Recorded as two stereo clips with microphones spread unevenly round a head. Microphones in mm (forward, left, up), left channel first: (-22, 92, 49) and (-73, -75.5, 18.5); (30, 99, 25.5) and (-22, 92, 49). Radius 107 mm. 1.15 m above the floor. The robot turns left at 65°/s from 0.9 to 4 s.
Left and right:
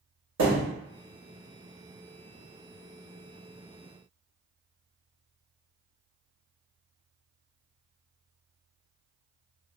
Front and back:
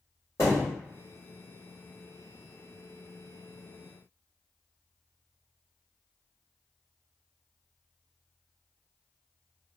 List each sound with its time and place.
0.4 s a thud: 80° right, 1.2 m